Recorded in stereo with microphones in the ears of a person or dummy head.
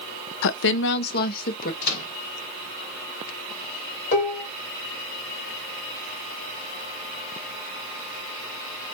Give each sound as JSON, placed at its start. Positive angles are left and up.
{"t": 0.4, "sound": "a woman speaking", "side_deg": 70, "distance_m": 0.5}
{"t": 1.8, "sound": "a microwave", "side_deg": 50, "distance_m": 2.5}
{"t": 4.1, "sound": "dishes clattering", "side_deg": 35, "distance_m": 3.0}